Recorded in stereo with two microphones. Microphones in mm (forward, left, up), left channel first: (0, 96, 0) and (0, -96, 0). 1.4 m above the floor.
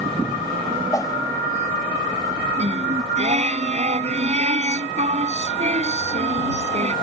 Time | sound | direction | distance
0.9 | a whoosh | 20° left (ahead or behind) | ?
2.6 | singing | 35° right (ahead or behind) | ?